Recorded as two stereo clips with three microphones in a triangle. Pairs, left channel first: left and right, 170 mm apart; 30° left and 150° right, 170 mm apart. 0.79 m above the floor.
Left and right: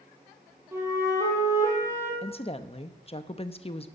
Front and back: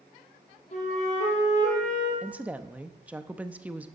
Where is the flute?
15° right, 3.5 m.